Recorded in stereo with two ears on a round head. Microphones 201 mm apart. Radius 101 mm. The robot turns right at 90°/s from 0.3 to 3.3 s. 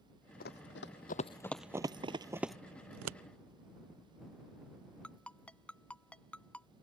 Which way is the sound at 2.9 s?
75° right (ahead or behind).